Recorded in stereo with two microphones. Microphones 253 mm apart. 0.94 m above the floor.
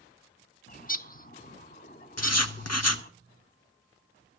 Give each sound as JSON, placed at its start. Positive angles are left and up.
{"t": 0.7, "sound": "a bird", "side_deg": 35, "distance_m": 0.8}
{"t": 2.2, "sound": "writing", "side_deg": 75, "distance_m": 1.0}